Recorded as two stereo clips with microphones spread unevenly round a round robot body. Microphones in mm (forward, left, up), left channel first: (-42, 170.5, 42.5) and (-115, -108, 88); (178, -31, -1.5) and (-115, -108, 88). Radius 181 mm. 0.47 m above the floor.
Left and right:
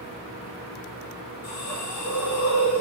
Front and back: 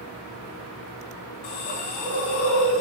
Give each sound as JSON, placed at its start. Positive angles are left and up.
{"t": 1.4, "sound": "a hiss", "azimuth_deg": 30, "distance_m": 0.8}